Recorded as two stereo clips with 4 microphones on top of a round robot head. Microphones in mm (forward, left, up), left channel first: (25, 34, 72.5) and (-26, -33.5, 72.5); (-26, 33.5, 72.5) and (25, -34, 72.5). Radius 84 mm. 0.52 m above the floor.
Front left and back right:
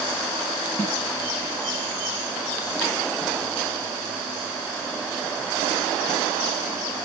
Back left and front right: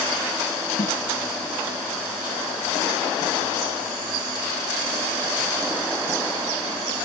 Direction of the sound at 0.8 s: 125° left.